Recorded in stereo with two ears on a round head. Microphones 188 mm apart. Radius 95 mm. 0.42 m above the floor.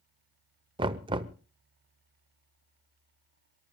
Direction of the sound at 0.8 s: 25° right (ahead or behind).